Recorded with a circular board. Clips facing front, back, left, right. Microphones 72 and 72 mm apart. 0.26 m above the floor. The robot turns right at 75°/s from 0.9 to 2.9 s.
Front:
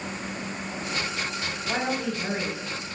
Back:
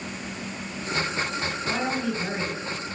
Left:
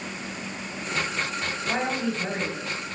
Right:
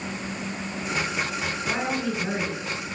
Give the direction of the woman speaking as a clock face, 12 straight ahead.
10 o'clock.